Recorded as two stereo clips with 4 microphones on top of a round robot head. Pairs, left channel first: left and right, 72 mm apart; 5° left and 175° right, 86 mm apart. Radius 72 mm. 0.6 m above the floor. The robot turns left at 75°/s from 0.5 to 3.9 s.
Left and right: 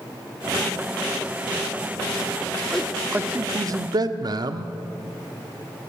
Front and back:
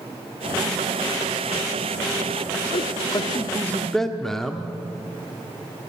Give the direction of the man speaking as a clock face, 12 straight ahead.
12 o'clock.